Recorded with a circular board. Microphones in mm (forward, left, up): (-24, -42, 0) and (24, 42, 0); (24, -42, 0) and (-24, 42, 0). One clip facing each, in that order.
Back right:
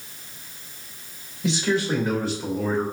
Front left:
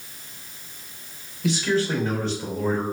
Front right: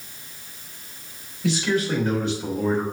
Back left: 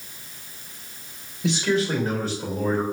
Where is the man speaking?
Straight behind, 1.8 m; by 2.8 s 140° left, 1.7 m.